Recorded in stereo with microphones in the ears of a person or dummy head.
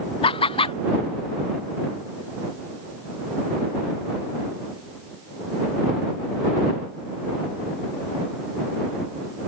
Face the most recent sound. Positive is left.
turn(degrees=25)  # may be behind; listen again after turning